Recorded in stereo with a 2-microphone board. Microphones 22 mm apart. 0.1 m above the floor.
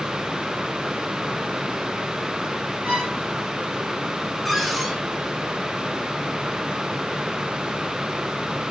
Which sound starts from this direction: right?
A violin, at 2.9 s.